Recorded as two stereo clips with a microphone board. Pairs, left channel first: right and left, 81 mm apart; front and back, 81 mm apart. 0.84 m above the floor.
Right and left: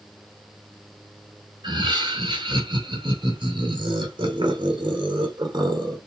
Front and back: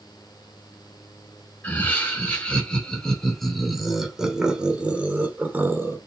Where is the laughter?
70° left, 4 m; by 6.0 s 120° left, 2.5 m.